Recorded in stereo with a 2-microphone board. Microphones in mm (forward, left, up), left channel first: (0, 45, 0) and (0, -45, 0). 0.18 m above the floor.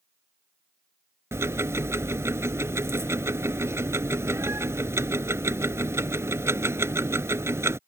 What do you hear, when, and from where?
1.3 s ticking: 30° right (ahead or behind)